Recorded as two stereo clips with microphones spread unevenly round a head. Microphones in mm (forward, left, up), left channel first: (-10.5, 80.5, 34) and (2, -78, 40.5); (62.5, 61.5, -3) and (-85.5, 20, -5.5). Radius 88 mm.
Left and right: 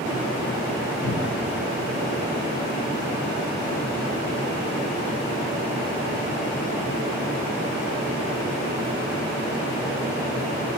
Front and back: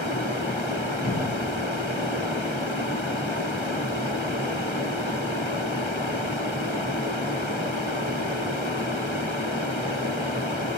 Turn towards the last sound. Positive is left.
turn(degrees=60)